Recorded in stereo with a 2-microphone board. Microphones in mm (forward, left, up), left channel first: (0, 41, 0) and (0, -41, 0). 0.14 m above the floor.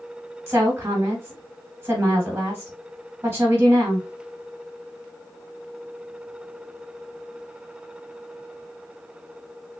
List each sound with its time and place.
0.5 s a woman speaking: 30° right (ahead or behind), 3 m